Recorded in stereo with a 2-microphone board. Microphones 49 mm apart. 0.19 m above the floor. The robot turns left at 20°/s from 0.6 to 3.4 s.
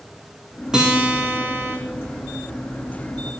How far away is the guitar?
About 4.5 m.